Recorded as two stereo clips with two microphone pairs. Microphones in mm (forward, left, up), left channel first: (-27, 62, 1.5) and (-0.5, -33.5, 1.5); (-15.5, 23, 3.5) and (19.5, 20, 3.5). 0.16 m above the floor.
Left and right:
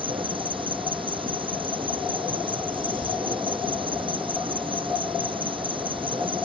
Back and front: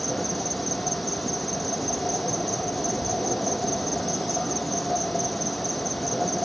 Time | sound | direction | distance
0.0 | an insect | 95° right | ?